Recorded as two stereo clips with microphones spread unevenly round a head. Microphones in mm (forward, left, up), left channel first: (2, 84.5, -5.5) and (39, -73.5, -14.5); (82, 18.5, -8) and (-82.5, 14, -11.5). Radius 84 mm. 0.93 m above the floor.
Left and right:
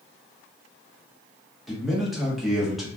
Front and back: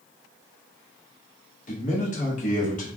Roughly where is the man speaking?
Ahead.